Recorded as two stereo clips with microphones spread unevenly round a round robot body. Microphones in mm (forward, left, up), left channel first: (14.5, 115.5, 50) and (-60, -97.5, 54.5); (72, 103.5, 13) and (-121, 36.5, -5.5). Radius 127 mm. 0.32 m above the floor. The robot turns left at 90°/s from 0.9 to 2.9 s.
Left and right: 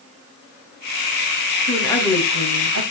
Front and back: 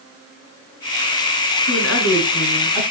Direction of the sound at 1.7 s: 20° left.